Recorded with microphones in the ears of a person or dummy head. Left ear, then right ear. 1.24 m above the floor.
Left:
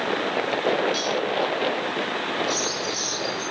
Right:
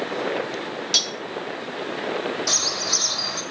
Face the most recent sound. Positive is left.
turn(degrees=-60)  # may be behind; listen again after turning